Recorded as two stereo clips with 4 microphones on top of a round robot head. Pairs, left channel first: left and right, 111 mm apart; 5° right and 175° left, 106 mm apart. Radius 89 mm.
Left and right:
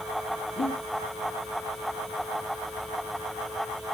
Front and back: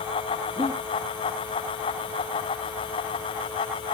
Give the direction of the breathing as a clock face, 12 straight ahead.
8 o'clock.